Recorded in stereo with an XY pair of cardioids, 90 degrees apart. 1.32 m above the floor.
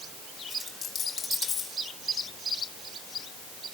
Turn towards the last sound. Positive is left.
turn(degrees=55)